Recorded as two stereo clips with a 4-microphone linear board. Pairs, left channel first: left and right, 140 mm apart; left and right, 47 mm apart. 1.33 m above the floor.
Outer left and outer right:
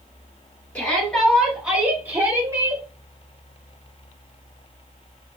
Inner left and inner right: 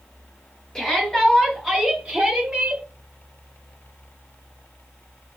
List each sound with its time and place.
0.8 s a shout: 10° left (ahead or behind), 2.5 m; by 2.8 s 30° right (ahead or behind), 3 m